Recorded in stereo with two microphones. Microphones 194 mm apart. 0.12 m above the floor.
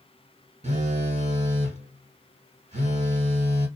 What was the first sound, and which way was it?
A phone buzzing, 40° right (ahead or behind).